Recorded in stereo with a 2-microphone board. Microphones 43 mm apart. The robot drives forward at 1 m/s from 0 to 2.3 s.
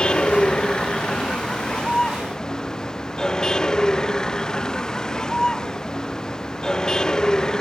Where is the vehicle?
20° left (ahead or behind); by 7.6 s 15° left (ahead or behind).